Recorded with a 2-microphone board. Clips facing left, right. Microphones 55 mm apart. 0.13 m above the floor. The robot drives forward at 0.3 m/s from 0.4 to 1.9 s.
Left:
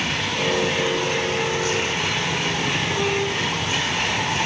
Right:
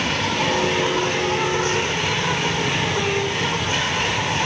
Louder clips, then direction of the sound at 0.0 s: Right 2 dB; 55° right (ahead or behind).